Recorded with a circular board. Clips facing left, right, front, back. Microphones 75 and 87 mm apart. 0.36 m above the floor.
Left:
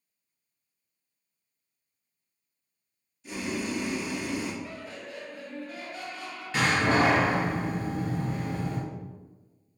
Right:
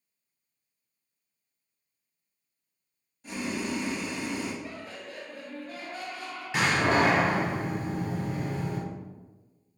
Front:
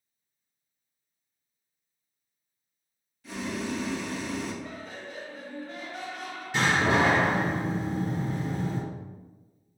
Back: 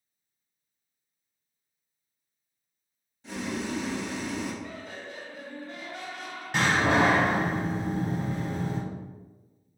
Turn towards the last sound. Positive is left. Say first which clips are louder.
# even, back 1 dB
turn(degrees=-160)